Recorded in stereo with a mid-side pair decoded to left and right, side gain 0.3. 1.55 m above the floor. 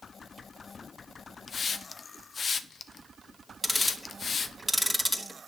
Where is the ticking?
10° left, 2.5 m.